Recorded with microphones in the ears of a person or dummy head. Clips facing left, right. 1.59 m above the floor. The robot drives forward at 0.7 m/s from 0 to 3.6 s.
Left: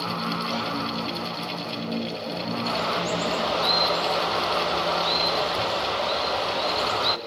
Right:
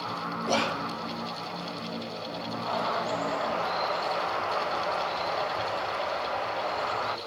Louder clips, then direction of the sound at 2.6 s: Left 1 dB; 35° left (ahead or behind).